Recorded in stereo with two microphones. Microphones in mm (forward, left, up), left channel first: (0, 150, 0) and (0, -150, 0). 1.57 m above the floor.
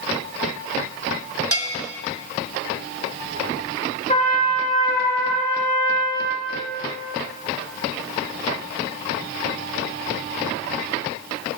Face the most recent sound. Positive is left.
turn(degrees=25)  # may be behind; listen again after turning